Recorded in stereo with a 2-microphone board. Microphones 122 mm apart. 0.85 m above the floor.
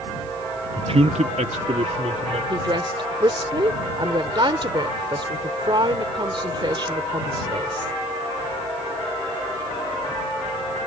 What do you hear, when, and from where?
0.8 s a man speaking: 35° right (ahead or behind); by 2.4 s 65° right (ahead or behind)
2.5 s a woman speaking: 40° right (ahead or behind)